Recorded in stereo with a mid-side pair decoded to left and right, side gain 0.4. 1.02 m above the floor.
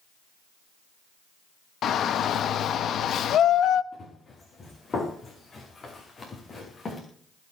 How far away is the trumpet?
No trumpet in this recording.